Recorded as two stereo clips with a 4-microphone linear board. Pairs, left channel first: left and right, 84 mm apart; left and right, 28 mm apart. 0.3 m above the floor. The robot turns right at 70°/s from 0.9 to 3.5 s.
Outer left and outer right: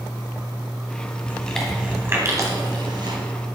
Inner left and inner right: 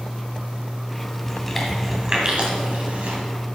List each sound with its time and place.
1.3 s chewing: 25° left (ahead or behind), 1.8 m; by 3.2 s 55° right (ahead or behind), 1.8 m